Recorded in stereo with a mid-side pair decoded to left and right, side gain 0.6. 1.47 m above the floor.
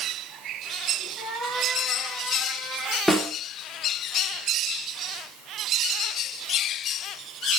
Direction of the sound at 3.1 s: 5° left.